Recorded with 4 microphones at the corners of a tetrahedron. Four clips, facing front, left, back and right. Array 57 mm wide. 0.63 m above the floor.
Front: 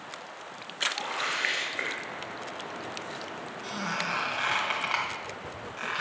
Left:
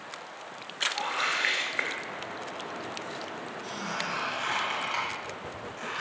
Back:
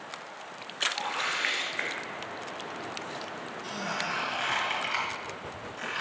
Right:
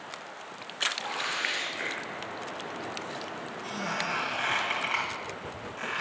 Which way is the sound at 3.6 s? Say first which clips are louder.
Right 2 dB, front 1 dB; 20° right.